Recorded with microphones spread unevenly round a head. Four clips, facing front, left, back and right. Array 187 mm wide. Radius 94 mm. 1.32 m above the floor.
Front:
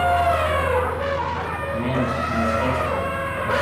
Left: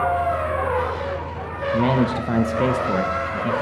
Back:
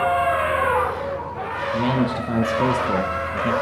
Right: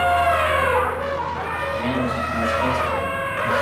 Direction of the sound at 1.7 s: 90° left.